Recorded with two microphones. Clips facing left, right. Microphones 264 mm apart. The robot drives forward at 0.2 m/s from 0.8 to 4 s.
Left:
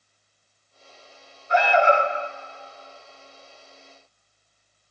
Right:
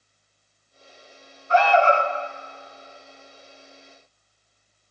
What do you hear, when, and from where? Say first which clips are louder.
1.5 s an alarm: right 1 dB; 15° left (ahead or behind), 0.8 m